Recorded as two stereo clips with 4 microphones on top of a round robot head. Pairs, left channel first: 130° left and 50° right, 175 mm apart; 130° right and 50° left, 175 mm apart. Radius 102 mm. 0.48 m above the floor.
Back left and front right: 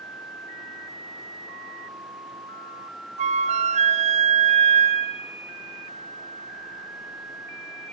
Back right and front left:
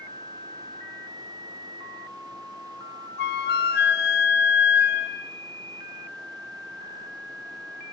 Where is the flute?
100° right, 1.3 m.